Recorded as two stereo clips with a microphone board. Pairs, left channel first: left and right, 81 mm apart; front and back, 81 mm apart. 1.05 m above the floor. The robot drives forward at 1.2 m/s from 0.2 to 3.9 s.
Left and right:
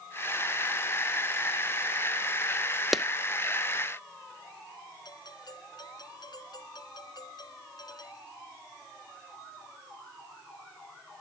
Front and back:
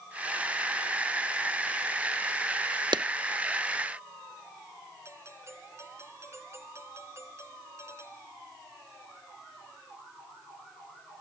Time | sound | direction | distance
2.9 | a clap | 175° right | ?
5.0 | a doorbell | 125° left | ?